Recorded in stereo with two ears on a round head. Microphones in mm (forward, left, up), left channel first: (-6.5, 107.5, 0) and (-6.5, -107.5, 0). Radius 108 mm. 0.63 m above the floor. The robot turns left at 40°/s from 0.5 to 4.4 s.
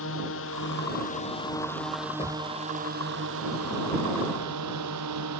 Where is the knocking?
30° left (ahead or behind); by 2.5 s 15° left (ahead or behind).